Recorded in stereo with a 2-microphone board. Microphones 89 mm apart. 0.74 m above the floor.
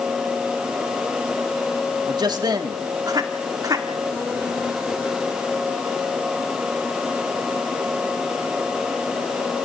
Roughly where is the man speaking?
Right.